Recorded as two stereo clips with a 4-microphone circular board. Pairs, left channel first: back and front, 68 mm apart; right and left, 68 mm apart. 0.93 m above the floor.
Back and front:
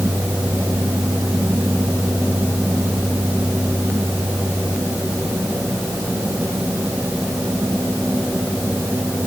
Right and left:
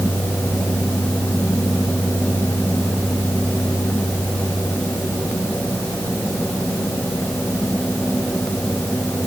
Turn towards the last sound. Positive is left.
No sound to turn to.